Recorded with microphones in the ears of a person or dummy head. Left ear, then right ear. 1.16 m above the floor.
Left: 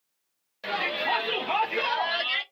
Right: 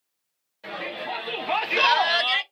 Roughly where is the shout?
Centre.